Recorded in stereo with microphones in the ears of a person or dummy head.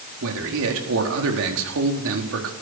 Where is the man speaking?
75° right (ahead or behind), 4.5 m.